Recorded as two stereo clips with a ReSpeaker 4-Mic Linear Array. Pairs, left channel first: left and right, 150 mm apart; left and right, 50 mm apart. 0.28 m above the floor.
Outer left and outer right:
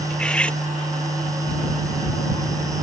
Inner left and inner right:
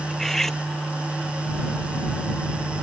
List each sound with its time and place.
0.1 s cutlery clinking: 5° left (ahead or behind)